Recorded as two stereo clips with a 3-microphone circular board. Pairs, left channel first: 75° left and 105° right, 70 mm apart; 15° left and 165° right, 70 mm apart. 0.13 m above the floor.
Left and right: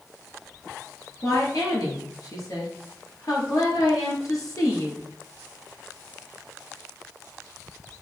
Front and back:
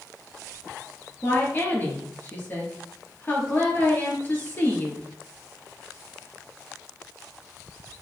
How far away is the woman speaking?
About 1.8 m.